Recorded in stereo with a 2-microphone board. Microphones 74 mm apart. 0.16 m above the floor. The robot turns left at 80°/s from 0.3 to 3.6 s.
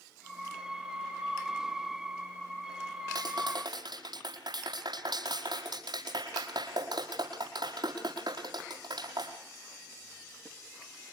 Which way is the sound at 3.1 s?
60° right (ahead or behind).